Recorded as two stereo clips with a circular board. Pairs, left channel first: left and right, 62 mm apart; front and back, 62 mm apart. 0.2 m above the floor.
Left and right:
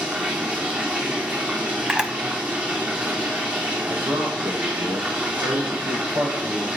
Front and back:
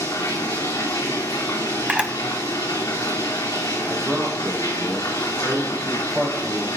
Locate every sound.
0.0 s running water: 25° right, 3 m
1.9 s a camera shutter: 140° right, 1.2 m
3.8 s a man speaking: 105° right, 7 m